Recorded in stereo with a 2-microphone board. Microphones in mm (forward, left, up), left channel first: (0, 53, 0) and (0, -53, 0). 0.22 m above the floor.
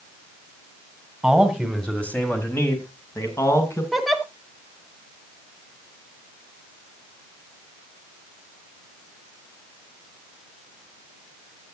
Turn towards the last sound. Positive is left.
turn(degrees=0)  # may be behind; listen again after turning